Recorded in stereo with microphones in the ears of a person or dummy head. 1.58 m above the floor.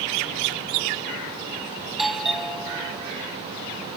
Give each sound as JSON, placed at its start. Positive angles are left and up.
{"t": 1.9, "sound": "a doorbell", "side_deg": 0}